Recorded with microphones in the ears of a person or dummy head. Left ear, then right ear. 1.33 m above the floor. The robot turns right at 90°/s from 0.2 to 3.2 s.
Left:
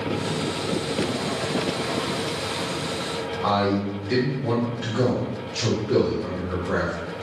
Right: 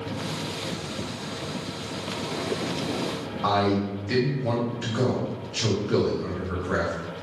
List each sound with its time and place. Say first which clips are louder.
3.4 s a man speaking: even; 15° right (ahead or behind), 1.0 m